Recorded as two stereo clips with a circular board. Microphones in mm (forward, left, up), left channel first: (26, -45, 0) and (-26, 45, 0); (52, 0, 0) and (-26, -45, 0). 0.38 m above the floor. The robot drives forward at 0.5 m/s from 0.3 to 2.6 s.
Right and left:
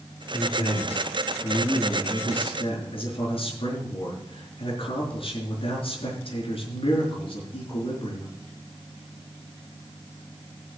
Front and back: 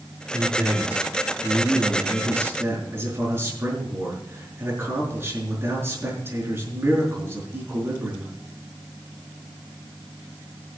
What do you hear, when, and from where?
0.3 s a man speaking: 75° right, 5.5 m; by 8.3 s 85° right, 5 m